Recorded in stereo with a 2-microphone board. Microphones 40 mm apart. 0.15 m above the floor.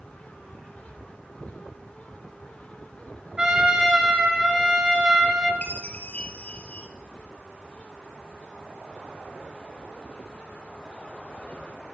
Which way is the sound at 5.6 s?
35° left (ahead or behind).